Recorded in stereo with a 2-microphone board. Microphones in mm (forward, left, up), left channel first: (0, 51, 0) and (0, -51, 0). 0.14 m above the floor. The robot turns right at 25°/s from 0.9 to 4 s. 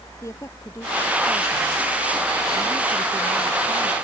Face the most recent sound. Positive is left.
turn(degrees=-130)